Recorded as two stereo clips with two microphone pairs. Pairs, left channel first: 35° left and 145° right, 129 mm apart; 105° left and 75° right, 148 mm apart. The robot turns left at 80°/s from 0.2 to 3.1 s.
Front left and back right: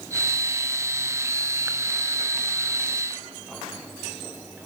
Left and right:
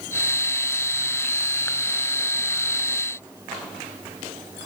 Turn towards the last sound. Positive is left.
No sound to turn to.